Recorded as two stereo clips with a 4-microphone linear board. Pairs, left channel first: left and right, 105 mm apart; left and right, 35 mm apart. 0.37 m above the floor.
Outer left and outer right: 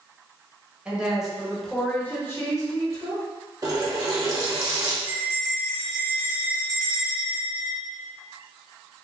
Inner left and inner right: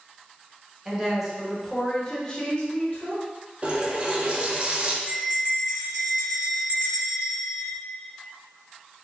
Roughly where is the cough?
No cough in this recording.